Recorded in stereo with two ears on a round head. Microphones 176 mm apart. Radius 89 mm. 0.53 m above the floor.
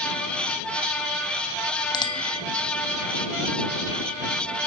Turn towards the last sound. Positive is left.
turn(degrees=25)  # may be behind; listen again after turning